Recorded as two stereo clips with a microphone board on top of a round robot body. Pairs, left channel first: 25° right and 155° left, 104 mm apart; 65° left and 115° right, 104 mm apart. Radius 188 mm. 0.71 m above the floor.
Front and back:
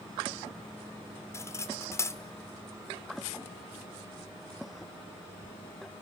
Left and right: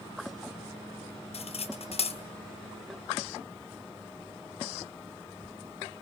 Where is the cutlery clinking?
40° left, 1.7 m.